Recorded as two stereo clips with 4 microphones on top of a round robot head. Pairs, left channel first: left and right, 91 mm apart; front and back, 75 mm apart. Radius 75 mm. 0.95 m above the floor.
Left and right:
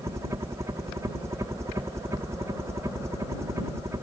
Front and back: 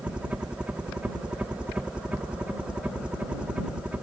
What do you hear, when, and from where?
0.0 s a helicopter: 115° right